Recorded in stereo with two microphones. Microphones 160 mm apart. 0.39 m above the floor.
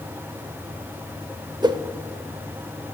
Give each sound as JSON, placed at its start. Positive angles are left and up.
{"t": 1.6, "sound": "a whoosh", "side_deg": -25, "distance_m": 0.6}